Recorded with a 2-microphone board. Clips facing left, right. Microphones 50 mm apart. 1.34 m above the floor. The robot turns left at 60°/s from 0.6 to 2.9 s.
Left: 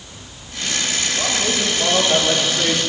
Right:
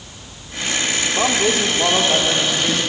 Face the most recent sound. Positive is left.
turn(degrees=145)